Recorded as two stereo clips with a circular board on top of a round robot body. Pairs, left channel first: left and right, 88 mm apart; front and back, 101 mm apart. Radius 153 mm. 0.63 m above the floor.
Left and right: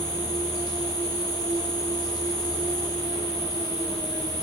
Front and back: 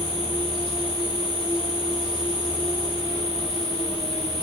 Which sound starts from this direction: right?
An insect, at 0.0 s.